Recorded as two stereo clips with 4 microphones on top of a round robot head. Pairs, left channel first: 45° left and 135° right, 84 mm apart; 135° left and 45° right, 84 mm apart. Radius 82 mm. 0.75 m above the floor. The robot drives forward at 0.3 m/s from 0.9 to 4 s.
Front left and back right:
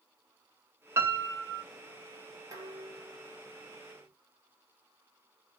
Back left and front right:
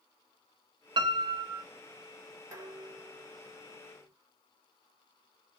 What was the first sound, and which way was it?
A piano, 75° right.